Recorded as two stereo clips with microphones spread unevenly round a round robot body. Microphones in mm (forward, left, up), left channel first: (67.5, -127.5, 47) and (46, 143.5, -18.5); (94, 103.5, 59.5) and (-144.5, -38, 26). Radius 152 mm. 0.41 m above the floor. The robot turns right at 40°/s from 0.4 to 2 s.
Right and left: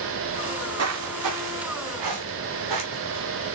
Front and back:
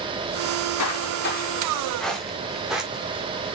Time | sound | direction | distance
0.5 | footsteps | 40° left | 3 m